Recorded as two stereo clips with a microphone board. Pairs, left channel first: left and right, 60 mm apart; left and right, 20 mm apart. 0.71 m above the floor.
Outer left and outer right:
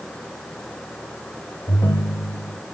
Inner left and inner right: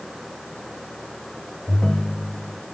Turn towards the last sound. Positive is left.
turn(degrees=70)  # may be behind; listen again after turning